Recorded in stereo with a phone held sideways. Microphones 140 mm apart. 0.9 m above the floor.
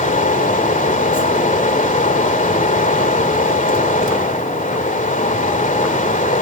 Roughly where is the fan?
Left.